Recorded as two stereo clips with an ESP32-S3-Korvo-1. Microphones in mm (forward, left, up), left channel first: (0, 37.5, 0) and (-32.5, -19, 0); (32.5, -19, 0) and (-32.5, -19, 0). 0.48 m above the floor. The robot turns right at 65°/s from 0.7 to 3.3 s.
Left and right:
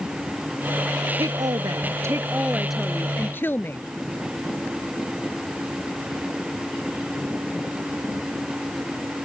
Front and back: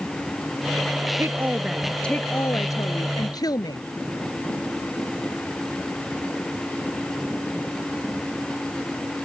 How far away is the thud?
No thud in this recording.